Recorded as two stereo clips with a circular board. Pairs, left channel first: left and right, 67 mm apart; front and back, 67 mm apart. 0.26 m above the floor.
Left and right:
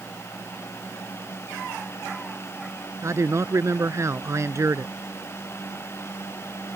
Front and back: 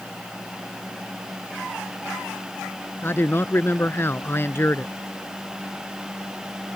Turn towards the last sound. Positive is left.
turn(degrees=-50)